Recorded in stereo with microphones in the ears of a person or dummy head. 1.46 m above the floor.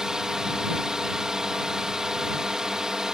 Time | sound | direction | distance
0.0 | a drone | 5° right (ahead or behind) | ?